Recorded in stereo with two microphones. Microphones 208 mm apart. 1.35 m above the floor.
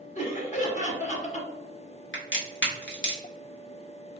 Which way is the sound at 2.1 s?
65° left (ahead or behind).